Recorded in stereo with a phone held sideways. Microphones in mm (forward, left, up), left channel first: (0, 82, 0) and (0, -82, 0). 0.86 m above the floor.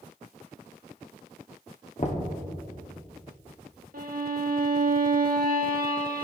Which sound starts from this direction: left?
Knocking, at 2.0 s.